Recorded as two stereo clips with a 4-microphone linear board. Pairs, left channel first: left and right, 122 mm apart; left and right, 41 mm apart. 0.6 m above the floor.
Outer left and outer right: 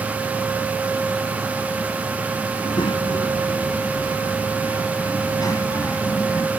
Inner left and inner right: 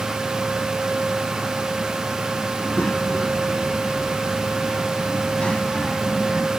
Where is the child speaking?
40° left (ahead or behind); by 6.5 s 25° left (ahead or behind).